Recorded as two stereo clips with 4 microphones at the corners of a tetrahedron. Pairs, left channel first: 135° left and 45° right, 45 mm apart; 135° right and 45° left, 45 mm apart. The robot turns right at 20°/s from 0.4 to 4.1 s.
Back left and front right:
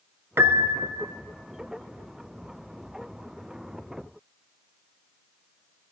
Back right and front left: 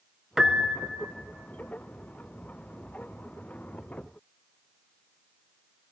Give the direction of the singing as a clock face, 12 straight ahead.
I don't hear singing.